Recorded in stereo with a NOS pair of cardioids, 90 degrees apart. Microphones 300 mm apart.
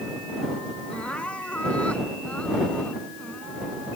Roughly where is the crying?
Ahead.